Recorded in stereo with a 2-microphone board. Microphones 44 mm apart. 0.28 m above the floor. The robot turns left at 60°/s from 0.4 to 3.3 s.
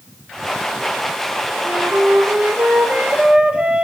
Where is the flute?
55° right, 1.3 m; by 3.8 s 155° right, 1.3 m.